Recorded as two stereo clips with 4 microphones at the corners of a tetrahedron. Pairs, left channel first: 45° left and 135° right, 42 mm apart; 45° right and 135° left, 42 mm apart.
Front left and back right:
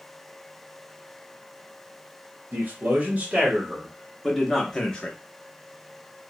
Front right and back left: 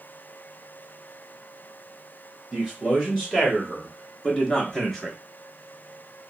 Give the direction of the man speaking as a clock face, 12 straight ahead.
4 o'clock.